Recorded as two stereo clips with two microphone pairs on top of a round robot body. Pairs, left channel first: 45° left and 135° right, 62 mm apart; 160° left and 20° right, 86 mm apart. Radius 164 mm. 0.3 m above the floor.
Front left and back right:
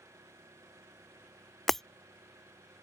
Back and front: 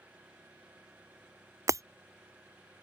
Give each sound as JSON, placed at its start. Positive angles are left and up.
{"t": 0.0, "sound": "an engine running", "azimuth_deg": -95}
{"t": 1.7, "sound": "breaking glass", "azimuth_deg": -50}